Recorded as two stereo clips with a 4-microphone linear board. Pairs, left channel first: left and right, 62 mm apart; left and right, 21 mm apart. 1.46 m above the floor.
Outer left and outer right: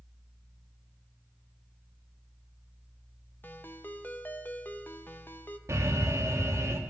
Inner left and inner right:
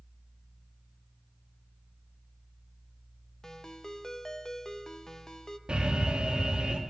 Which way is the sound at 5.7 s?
50° right (ahead or behind).